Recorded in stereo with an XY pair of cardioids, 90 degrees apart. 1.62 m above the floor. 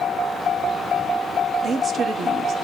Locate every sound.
1.6 s a woman speaking: 70° right, 1.5 m